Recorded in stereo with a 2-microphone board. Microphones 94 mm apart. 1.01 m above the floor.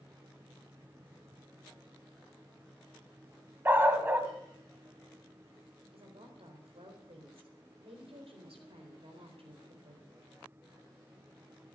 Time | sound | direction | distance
3.6 | a dog barking | 25° right (ahead or behind) | 1.6 m
5.9 | a woman speaking | 85° right | 4 m